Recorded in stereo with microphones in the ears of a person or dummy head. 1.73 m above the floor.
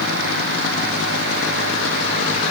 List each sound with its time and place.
Only background noise.